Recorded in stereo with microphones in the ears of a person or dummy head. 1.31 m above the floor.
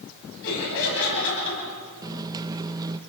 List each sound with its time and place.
0.4 s laughter: 75° left (ahead or behind), 9 m
2.0 s a microwave: 15° right (ahead or behind), 0.7 m